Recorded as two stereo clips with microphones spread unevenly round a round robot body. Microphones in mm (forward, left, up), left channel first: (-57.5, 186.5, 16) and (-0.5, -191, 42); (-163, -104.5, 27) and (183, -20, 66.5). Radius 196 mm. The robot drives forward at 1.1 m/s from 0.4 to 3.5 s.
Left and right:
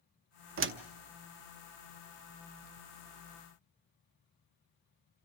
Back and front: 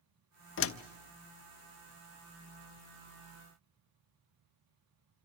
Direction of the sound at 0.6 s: 130° right.